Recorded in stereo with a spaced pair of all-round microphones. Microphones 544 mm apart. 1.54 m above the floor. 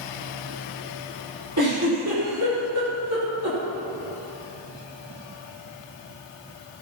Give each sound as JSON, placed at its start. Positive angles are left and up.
{"t": 1.6, "sound": "a giggle", "side_deg": -35, "distance_m": 5.0}